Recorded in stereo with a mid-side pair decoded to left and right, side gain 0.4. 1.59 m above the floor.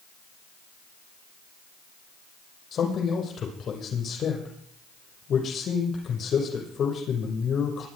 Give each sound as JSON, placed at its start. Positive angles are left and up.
{"t": 2.7, "sound": "a man speaking", "azimuth_deg": 65, "distance_m": 6.0}